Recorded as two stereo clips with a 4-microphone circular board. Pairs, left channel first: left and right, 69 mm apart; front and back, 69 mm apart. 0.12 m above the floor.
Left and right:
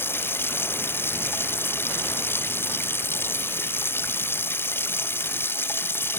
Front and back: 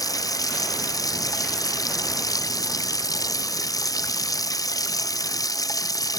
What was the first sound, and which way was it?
Running water, 30° left.